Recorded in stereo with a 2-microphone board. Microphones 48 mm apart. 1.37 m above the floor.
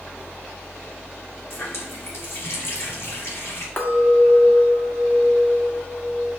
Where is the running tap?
60° left (ahead or behind), 2.5 m.